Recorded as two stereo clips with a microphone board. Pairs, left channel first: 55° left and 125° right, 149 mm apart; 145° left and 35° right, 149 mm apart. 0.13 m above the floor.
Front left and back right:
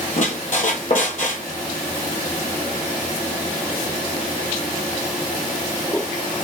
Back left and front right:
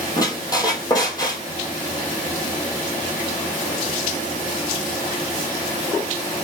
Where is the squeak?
80° left, 0.6 m.